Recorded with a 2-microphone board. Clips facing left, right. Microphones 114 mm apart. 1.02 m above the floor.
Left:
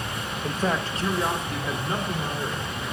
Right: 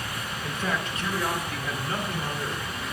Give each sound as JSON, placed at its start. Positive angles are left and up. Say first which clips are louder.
{"t": 0.4, "sound": "a man speaking", "louder": "left 4 dB", "side_deg": 40, "distance_m": 0.8}